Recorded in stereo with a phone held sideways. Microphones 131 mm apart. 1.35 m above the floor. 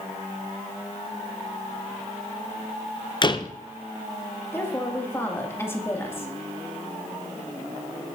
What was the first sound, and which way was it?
A door slam, 35° left (ahead or behind).